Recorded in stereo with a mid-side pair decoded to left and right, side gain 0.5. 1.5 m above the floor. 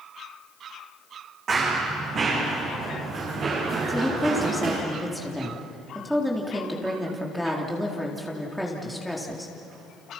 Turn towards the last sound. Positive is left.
turn(degrees=0)